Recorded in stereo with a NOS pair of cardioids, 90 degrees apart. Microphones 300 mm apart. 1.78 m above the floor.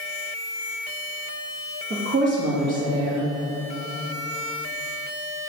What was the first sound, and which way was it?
A woman speaking, 35° right.